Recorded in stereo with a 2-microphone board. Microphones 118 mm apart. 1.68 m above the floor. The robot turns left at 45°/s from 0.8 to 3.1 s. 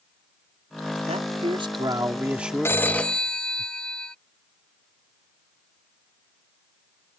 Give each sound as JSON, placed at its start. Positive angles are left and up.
{"t": 1.1, "sound": "a man speaking", "azimuth_deg": -110}
{"t": 2.6, "sound": "a phone ringing", "side_deg": 20}